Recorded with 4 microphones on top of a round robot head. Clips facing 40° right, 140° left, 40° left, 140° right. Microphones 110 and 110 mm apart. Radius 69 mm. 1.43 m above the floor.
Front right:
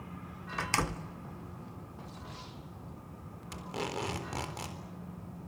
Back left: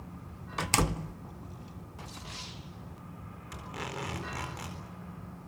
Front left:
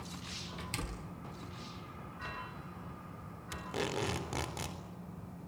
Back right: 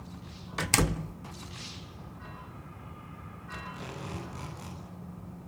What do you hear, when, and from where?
0.6 s a door slam: 150° right, 0.6 m
3.5 s tape being pulled: 25° left, 4 m